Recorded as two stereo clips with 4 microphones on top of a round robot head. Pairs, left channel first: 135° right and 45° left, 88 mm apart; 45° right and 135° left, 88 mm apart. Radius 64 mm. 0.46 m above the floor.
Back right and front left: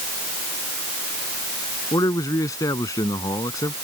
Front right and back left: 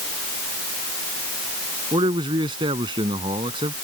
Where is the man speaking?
170° left.